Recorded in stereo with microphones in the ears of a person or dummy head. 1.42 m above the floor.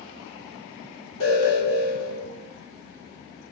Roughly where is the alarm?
Left.